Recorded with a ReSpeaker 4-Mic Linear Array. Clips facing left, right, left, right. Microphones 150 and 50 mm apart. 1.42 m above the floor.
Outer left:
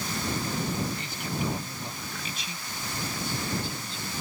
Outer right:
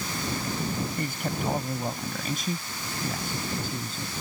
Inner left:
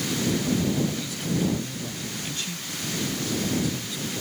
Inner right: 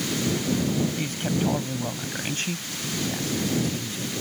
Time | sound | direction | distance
1.0 | a man speaking | 50° right (ahead or behind) | ?